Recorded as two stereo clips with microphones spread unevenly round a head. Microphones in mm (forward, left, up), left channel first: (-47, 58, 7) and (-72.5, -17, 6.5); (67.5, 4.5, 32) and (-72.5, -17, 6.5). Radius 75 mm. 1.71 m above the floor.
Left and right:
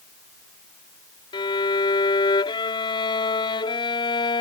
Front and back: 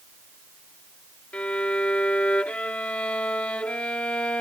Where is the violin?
90° left.